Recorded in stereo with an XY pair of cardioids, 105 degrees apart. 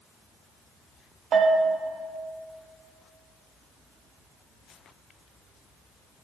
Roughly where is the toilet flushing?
No toilet flushing in this recording.